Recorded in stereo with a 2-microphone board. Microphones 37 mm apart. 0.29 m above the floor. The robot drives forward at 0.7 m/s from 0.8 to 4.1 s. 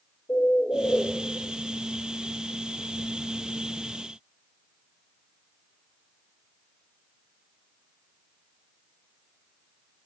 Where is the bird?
80° left, 1.1 m; by 1.1 s 70° left (ahead or behind), 1.1 m.